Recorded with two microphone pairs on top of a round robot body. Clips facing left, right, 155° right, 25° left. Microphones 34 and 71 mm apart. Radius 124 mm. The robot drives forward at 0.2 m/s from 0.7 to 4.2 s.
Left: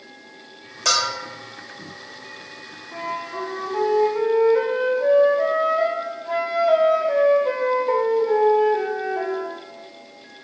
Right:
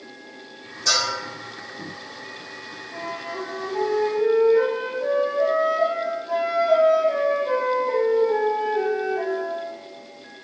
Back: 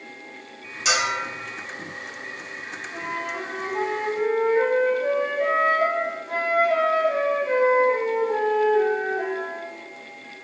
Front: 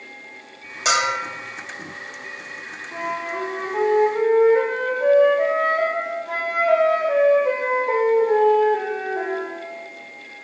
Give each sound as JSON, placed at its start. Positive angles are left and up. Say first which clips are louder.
{"t": 0.8, "sound": "a bell", "louder": "left 1 dB, front 3 dB", "azimuth_deg": 75, "distance_m": 0.6}
{"t": 2.9, "sound": "a flute", "louder": "left 3 dB, front 4 dB", "azimuth_deg": 40, "distance_m": 0.7}